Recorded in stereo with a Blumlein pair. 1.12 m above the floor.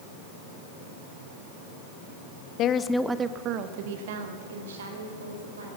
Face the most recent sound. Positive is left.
turn(degrees=-70)